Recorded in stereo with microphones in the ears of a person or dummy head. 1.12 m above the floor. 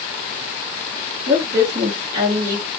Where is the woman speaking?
60° right (ahead or behind), 1.3 m; by 2.7 s 50° right (ahead or behind), 1.5 m.